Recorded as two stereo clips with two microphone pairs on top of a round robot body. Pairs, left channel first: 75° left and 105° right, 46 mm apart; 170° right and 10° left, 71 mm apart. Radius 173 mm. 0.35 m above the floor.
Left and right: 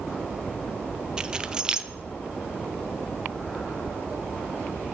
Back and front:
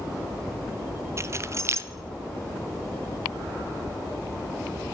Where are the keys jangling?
40° right, 0.7 m.